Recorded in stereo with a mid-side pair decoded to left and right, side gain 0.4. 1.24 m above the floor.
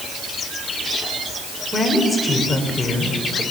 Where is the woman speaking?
5° left, 6 m.